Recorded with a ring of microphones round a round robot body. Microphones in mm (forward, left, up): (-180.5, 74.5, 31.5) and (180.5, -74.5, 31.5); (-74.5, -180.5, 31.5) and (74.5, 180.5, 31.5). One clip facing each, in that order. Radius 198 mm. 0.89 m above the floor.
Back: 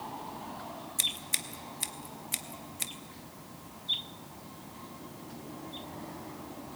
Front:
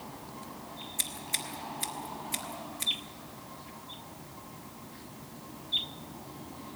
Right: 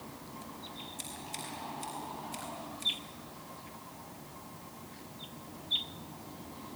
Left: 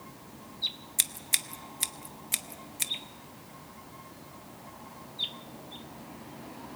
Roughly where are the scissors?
Left.